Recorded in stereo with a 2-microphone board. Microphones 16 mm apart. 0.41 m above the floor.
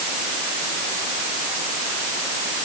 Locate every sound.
Only background noise.